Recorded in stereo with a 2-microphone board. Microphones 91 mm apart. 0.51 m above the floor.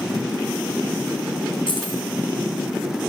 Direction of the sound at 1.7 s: 60° left (ahead or behind).